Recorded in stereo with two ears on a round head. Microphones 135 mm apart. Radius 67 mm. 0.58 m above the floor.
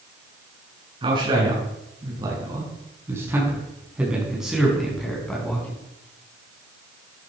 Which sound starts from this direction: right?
A man speaking, at 1.0 s.